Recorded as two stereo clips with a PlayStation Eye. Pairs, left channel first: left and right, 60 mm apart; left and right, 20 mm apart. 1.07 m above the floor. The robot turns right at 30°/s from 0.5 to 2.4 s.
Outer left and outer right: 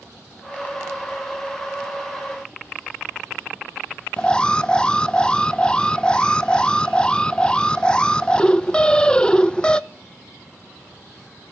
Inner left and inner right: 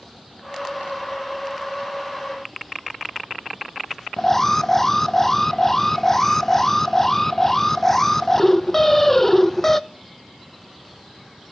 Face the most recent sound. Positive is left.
turn(degrees=15)  # may be behind; listen again after turning